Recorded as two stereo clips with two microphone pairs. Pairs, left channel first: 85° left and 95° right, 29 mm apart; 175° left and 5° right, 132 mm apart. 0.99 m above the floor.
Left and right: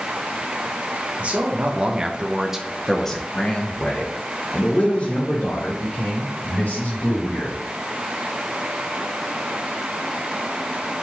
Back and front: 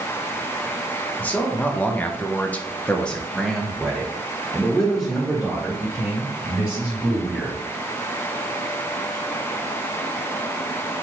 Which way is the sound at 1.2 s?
110° right.